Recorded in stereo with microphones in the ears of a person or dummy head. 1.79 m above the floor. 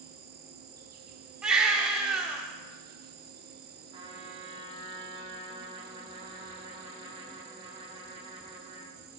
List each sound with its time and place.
0.0 s an insect: 45° right (ahead or behind), 0.8 m
1.4 s a baby crying: 10° right (ahead or behind), 1.6 m
3.9 s a trumpet: 35° right (ahead or behind), 1.9 m